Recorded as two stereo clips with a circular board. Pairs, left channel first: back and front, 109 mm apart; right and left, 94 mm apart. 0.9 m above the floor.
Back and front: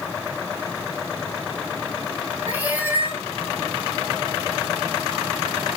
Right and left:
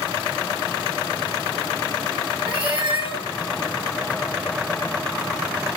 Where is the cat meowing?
75° left, 2.5 m.